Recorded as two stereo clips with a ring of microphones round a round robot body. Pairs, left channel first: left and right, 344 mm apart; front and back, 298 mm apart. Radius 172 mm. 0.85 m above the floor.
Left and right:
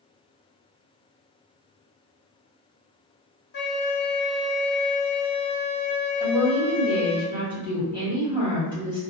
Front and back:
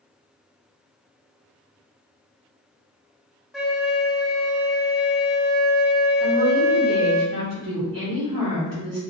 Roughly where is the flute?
Left.